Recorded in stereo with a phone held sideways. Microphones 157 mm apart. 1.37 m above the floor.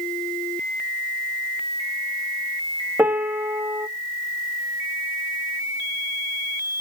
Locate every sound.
3.0 s a piano: 10° right (ahead or behind), 0.8 m